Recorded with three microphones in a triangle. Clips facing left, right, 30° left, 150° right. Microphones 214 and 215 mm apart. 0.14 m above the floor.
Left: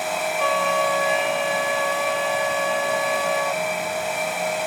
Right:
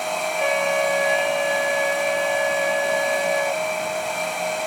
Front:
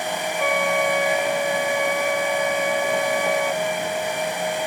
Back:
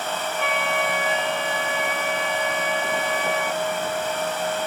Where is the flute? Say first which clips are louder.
Right 2 dB, front 6 dB; 15° right.